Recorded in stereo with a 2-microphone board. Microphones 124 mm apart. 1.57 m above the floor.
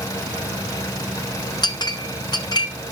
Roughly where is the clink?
Left.